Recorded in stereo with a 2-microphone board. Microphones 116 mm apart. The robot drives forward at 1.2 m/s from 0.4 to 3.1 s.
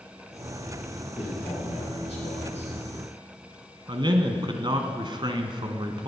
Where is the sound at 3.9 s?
45° right (ahead or behind), 1.3 m.